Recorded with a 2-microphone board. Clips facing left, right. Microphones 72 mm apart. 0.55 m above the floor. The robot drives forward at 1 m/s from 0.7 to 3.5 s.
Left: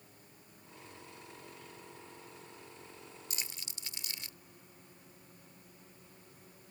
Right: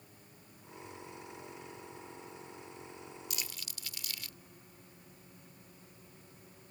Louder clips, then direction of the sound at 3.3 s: Right 1 dB; 35° left (ahead or behind).